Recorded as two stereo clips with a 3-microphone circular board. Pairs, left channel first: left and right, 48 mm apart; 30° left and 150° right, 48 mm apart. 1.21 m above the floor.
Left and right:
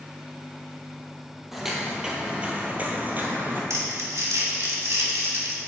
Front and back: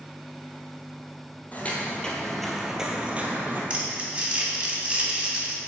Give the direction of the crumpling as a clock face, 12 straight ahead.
3 o'clock.